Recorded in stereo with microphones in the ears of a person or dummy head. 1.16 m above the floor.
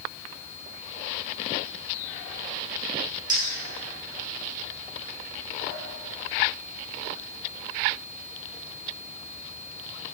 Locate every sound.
3.3 s a clink: 30° right (ahead or behind), 1.3 m